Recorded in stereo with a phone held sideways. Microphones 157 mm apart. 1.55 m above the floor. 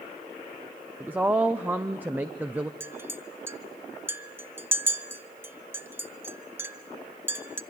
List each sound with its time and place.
1.0 s a woman speaking: 10° right (ahead or behind), 0.6 m
2.8 s a clink: 15° right (ahead or behind), 0.7 m